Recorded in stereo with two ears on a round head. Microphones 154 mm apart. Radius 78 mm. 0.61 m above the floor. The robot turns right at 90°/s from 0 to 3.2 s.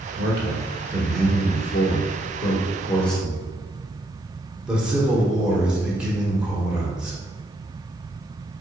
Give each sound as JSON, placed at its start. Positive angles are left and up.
{"t": 0.2, "sound": "a man speaking", "azimuth_deg": -85, "distance_m": 1.2}